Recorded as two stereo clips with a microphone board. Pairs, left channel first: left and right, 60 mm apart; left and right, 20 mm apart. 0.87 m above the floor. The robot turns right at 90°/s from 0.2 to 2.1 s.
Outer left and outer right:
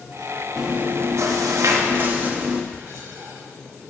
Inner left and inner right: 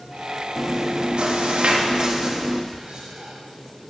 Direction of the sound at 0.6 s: 170° right.